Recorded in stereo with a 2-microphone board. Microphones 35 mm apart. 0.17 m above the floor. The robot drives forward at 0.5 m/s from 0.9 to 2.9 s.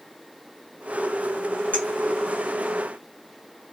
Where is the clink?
40° left (ahead or behind), 1.4 m.